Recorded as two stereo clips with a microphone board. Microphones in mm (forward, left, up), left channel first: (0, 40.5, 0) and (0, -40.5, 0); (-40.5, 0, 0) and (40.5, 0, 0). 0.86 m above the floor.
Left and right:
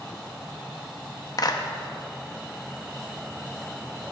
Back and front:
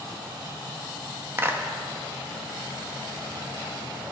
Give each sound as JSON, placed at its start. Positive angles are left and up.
{"t": 1.4, "sound": "a clap", "azimuth_deg": 60, "distance_m": 0.8}